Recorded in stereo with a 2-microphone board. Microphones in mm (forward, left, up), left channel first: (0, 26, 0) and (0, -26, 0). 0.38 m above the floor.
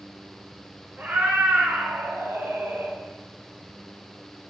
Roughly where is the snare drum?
I don't hear a snare drum.